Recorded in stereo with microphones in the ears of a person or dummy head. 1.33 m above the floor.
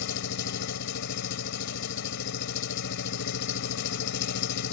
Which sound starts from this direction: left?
An engine running, at 0.0 s.